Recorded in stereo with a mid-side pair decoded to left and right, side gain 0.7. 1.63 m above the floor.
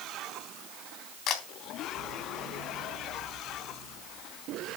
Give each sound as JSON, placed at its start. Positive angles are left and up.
{"t": 1.3, "sound": "a camera shutter", "azimuth_deg": 55, "distance_m": 3.5}